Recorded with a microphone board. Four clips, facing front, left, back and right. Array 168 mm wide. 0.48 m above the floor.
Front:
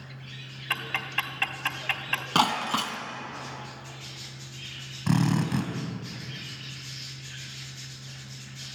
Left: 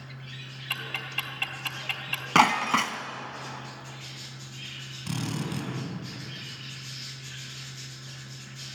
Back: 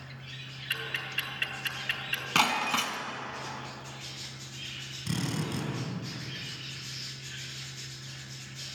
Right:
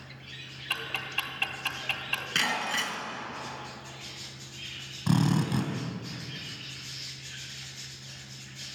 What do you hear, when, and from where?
0.7 s ticking: 5° right, 2 m
2.4 s breaking glass: 70° left, 1.8 m
5.1 s a drill: 35° right, 3 m